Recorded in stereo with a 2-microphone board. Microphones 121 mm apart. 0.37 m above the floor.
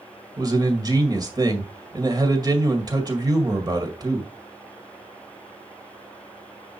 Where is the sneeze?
I don't hear a sneeze.